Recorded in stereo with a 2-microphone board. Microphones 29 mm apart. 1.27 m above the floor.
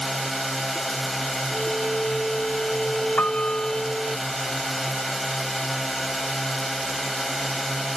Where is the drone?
5° left (ahead or behind).